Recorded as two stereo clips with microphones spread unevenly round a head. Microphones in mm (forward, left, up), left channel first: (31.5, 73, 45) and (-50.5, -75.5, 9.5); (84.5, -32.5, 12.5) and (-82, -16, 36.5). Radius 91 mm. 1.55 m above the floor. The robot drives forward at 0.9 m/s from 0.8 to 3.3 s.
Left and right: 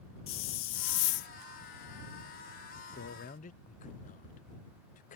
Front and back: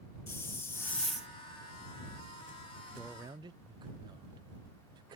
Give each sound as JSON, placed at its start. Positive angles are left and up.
{"t": 0.3, "sound": "a hiss", "azimuth_deg": 75}
{"t": 3.0, "sound": "a man speaking", "azimuth_deg": 75}